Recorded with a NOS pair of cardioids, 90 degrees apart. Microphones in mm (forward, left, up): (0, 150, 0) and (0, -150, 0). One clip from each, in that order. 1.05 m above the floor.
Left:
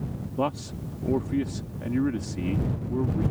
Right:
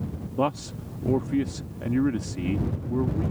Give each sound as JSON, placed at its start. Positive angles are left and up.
{"t": 0.4, "sound": "a man speaking", "azimuth_deg": -15}